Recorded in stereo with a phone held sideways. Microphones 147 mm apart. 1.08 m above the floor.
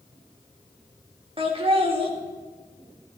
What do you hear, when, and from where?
1.4 s laughter: 40° right (ahead or behind), 2 m